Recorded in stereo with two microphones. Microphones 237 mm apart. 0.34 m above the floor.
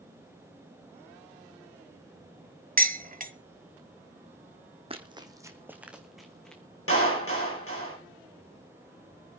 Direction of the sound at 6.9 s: 70° left (ahead or behind).